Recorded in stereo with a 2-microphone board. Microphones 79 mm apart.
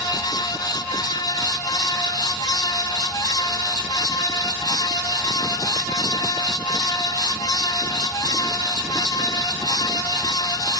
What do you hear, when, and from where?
Only background noise.